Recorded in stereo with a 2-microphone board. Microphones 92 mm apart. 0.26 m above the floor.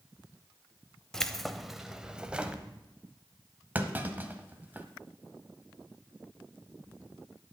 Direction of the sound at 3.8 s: 20° right (ahead or behind).